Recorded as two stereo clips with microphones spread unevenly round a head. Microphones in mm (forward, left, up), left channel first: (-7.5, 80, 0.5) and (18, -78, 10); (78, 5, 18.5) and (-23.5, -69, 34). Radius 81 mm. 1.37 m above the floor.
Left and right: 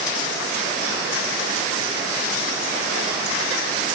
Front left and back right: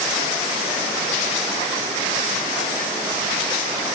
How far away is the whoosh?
No whoosh in this recording.